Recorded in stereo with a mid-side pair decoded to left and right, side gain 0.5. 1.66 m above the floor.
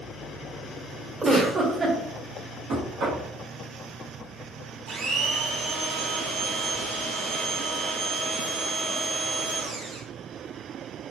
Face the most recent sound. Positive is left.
turn(degrees=-65)